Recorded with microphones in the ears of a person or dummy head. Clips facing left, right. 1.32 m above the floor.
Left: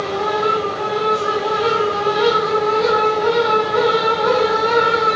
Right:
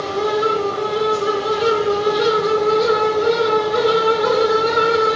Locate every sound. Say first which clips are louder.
0.0 s a fan: right 1 dB; 35° right (ahead or behind), 1.8 m